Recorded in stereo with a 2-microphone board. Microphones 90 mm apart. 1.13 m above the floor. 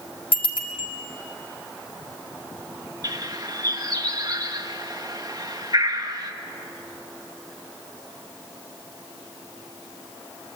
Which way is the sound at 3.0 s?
45° right (ahead or behind).